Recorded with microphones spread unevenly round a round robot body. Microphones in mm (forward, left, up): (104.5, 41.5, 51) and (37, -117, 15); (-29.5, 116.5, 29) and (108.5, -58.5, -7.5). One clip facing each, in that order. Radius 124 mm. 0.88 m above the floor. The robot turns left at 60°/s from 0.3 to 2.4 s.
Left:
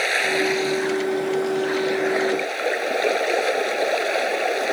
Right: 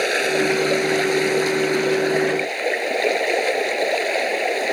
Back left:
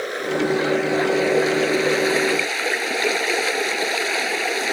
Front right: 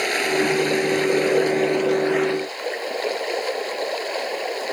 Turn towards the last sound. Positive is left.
turn(degrees=160)